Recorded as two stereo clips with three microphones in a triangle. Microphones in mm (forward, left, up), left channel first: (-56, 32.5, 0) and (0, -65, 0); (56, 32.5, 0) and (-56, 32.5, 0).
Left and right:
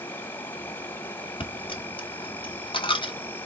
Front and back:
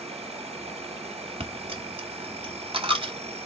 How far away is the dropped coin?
About 1.2 m.